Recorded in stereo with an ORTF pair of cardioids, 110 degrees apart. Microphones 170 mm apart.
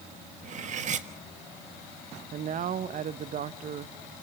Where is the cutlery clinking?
45° right, 1.4 m.